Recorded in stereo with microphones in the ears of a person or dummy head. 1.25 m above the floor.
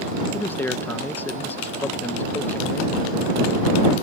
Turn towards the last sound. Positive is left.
turn(degrees=10)  # may be behind; listen again after turning